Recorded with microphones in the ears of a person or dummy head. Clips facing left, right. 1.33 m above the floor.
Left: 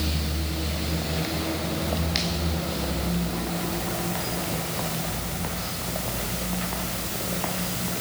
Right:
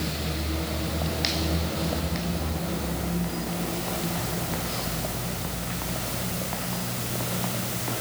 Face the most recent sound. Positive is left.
No sound to turn to.